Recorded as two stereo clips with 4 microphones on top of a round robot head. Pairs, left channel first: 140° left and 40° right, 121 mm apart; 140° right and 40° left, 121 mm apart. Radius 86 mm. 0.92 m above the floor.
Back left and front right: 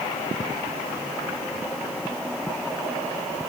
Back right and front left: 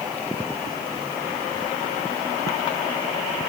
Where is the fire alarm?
I don't hear a fire alarm.